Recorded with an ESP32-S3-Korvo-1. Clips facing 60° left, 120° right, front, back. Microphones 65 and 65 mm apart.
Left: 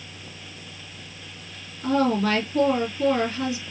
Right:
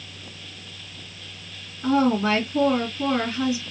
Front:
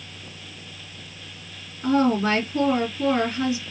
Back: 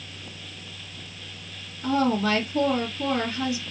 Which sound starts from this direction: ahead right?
A woman speaking, at 1.8 s.